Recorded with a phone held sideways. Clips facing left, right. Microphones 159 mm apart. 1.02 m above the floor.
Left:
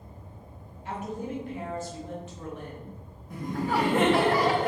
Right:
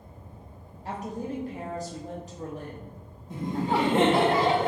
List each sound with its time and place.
0.8 s a woman speaking: 35° right (ahead or behind), 0.6 m
3.3 s laughter: 25° right (ahead or behind), 0.5 m